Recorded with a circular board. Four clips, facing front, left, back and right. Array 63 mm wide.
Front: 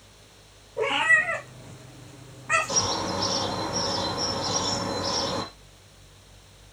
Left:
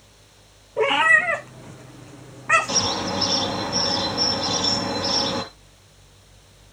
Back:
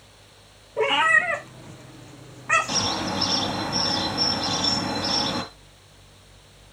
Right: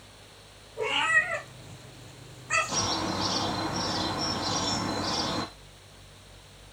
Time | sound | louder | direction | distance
0.8 | a cat meowing | left 8 dB, back 2 dB | 120° left | 2.5 m
2.7 | a bird | left 5 dB, back 1 dB | 135° left | 3.5 m